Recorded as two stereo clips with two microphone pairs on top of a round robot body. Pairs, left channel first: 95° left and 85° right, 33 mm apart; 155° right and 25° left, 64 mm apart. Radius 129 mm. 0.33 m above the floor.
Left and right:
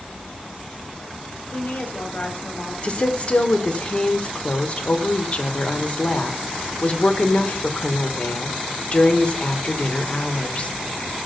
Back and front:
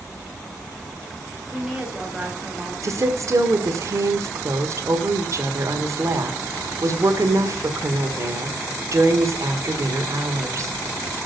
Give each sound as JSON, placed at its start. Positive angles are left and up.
{"t": 1.5, "sound": "a woman speaking", "azimuth_deg": 115, "distance_m": 3.0}
{"t": 2.8, "sound": "a woman speaking", "azimuth_deg": 65, "distance_m": 1.5}